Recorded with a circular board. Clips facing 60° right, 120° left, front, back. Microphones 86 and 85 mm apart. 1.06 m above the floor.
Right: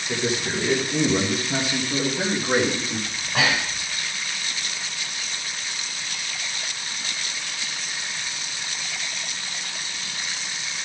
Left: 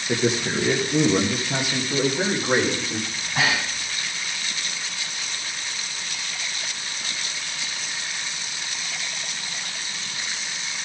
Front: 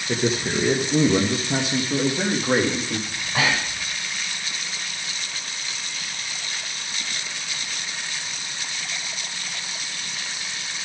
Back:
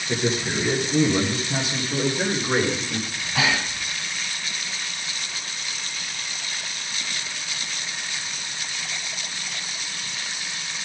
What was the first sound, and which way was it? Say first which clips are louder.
A man speaking: left 3 dB, front 1 dB; 60° left.